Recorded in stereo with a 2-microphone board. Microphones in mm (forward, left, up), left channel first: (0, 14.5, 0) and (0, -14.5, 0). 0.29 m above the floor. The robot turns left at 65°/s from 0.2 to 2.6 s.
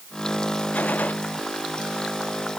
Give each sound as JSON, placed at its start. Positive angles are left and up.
{"t": 0.7, "sound": "a gunshot", "side_deg": 85}